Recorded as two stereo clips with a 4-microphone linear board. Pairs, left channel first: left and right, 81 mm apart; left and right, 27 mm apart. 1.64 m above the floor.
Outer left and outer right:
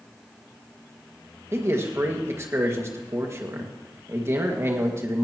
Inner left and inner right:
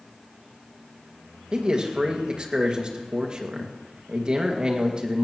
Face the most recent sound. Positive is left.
turn(degrees=-35)  # may be behind; listen again after turning